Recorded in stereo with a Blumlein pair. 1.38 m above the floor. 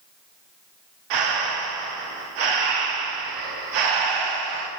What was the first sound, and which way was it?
Breathing, 40° right.